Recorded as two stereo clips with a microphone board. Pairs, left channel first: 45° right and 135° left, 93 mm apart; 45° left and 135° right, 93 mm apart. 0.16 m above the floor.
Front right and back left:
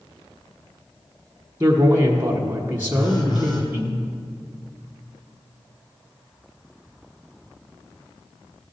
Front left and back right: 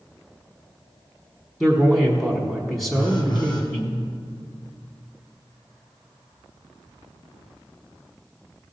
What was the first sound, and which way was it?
A man speaking, 140° left.